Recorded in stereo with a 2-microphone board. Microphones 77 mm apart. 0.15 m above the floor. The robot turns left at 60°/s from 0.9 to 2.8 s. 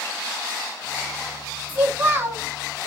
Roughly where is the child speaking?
Right.